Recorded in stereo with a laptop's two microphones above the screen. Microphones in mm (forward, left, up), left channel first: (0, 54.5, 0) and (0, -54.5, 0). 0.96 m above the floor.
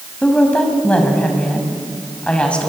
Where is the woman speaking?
10° left (ahead or behind), 5.5 m.